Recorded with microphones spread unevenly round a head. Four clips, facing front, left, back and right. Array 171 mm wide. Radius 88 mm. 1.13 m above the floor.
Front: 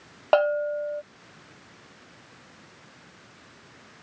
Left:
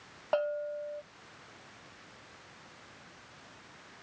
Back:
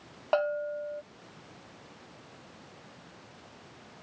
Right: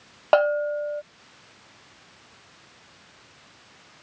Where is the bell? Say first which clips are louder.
Right 12 dB, front 7 dB; 50° right.